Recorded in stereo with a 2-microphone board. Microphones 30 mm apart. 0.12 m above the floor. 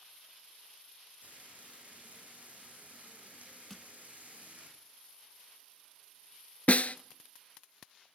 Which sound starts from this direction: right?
Frying, at 1.2 s.